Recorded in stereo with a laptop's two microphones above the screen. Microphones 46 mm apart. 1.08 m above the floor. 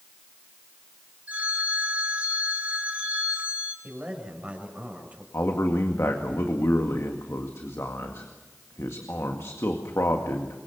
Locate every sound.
1.3 s a phone ringing: 35° right (ahead or behind), 4.5 m
3.8 s a man speaking: 30° right (ahead or behind), 6.5 m
5.3 s a man speaking: 70° left (ahead or behind), 2 m